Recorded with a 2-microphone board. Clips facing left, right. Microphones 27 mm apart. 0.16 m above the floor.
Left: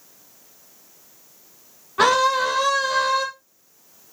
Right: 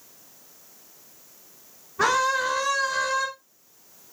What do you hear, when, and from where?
2.0 s a scream: 75° left (ahead or behind), 6.5 m; by 3.3 s 65° left (ahead or behind), 6 m